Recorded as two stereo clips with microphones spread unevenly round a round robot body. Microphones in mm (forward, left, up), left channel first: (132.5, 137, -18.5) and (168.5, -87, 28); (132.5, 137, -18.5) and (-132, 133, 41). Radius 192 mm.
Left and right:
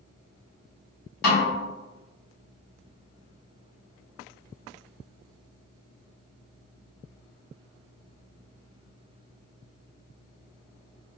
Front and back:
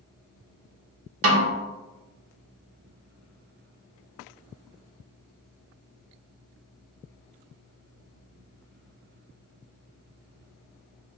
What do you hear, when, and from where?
1.2 s a snare drum: 140° left, 1.2 m